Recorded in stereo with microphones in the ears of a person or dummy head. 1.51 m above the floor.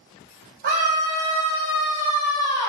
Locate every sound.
0.6 s a scream: 45° right (ahead or behind), 1.0 m; by 2.7 s 30° left (ahead or behind), 0.8 m